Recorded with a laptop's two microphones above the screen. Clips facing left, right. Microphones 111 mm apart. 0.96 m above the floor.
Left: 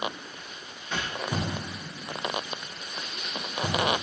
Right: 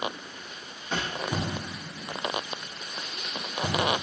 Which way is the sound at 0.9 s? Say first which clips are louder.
Right 1 dB; 30° right (ahead or behind).